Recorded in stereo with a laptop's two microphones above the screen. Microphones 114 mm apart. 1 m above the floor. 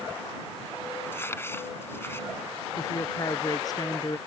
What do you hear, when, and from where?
1.1 s crumpling: 20° left (ahead or behind)
2.8 s a woman speaking: 35° left (ahead or behind)